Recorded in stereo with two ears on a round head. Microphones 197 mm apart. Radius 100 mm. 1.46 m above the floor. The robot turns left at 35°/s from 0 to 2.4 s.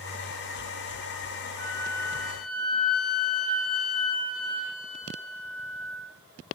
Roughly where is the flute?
Left.